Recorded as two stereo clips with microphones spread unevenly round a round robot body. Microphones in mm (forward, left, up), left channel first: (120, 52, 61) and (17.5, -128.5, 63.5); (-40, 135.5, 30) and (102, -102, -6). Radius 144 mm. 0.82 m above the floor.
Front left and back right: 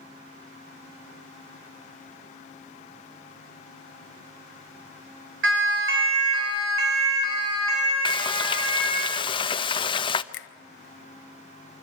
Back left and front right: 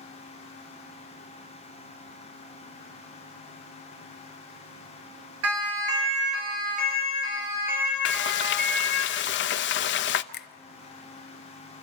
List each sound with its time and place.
5.4 s a siren: 95° right, 4.5 m; by 9.1 s 160° right, 6 m
8.1 s frying: 105° left, 0.8 m
10.3 s a finger snap: 65° left, 0.8 m